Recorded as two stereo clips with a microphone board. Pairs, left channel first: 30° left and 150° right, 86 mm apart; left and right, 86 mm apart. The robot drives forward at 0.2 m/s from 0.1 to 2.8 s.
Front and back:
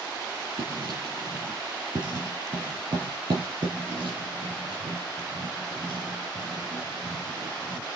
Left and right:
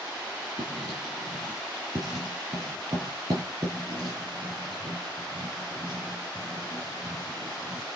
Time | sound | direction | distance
0.6 | writing | 135° right | 8.5 m